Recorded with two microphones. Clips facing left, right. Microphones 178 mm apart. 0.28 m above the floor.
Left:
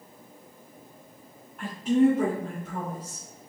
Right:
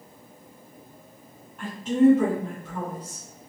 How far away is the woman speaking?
About 1.8 m.